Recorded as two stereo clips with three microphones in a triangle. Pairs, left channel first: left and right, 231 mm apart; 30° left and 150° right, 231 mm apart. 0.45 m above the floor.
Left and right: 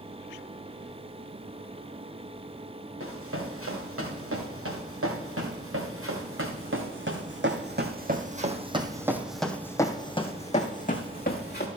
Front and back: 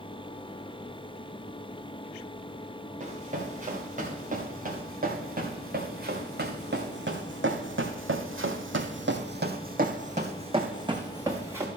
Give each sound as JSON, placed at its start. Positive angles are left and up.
{"t": 3.0, "sound": "running footsteps", "azimuth_deg": -95, "distance_m": 3.5}